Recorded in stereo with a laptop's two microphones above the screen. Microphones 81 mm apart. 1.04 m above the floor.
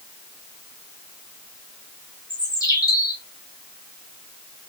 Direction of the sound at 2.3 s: 45° left (ahead or behind).